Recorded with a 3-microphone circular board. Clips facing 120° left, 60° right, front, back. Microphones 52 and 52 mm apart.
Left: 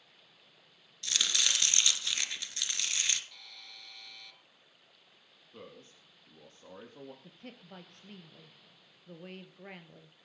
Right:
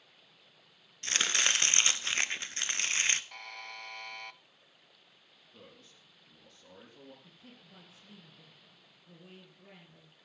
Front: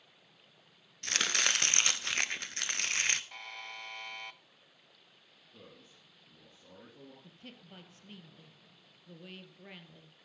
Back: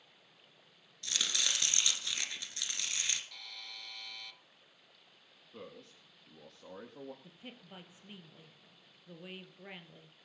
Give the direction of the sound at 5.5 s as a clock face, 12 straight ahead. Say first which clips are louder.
Left 6 dB, back 6 dB; 6 o'clock.